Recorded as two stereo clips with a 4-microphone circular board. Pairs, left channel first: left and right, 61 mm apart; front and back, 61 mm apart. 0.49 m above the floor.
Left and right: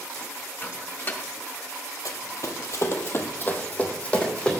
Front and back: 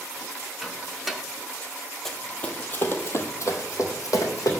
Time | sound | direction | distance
0.6 | a microwave | 90° left | 0.7 m
2.0 | running footsteps | 85° left | 1.0 m